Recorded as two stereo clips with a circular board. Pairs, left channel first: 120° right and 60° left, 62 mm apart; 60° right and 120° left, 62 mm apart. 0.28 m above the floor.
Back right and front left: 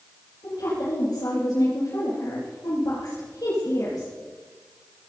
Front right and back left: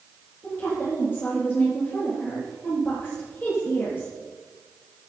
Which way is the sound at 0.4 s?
115° right.